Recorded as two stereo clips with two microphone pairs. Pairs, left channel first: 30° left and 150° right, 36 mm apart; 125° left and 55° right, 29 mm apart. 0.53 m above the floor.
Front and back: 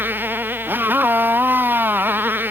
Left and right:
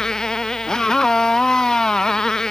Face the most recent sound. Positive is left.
turn(degrees=-170)